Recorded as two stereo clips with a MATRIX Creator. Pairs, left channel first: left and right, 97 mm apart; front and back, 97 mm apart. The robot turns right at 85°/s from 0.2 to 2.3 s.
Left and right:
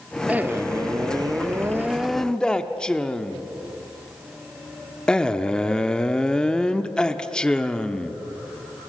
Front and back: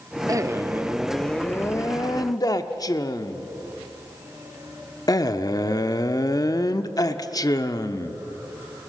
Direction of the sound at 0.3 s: 160° right.